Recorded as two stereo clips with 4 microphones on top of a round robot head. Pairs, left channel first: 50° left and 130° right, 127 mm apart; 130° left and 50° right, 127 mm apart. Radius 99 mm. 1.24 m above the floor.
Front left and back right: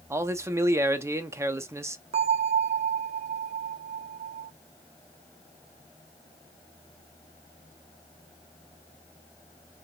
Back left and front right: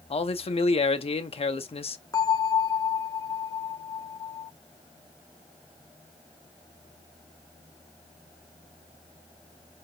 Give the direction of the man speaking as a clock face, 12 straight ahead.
7 o'clock.